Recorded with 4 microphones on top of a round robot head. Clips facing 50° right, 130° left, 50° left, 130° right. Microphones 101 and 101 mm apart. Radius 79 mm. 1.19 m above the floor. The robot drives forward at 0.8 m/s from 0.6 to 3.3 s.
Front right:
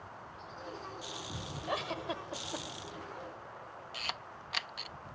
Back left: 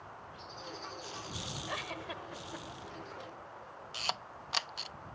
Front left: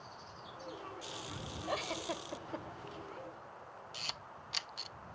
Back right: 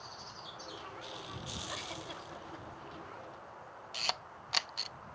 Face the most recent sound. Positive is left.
turn(degrees=-170)